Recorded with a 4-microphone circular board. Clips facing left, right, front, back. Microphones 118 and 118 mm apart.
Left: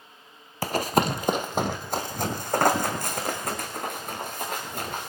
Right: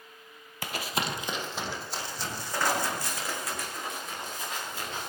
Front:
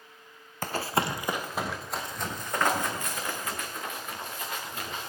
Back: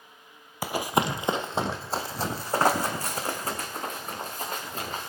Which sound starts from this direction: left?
Running footsteps, at 0.6 s.